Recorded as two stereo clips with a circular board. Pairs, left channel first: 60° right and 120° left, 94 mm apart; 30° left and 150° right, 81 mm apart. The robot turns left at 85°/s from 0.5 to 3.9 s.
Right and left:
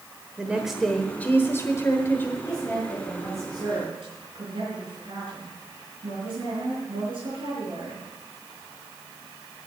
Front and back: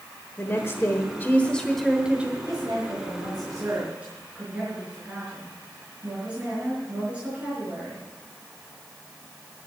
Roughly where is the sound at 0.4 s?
Ahead left.